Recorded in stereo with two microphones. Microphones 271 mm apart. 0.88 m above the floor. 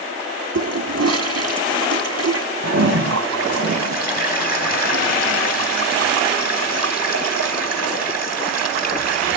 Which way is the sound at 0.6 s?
75° right (ahead or behind).